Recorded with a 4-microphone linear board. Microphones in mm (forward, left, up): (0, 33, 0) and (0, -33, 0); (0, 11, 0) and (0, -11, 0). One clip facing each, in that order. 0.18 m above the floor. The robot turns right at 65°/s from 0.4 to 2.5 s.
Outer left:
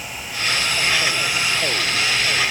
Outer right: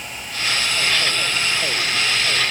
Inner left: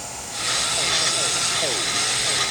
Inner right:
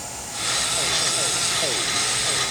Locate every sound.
Only background noise.